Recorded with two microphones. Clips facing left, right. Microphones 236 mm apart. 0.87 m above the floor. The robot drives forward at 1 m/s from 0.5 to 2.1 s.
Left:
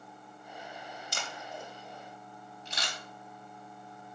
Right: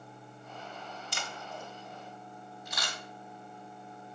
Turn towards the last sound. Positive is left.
turn(degrees=30)  # may be behind; listen again after turning